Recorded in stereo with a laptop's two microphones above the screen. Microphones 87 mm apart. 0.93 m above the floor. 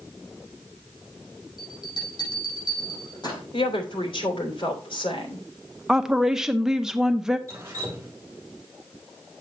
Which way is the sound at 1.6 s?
50° left (ahead or behind).